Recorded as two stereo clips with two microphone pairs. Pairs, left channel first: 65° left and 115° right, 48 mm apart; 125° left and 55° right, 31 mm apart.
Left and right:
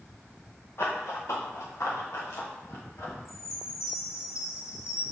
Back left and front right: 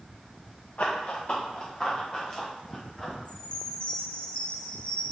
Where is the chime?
70° left, 2.5 m.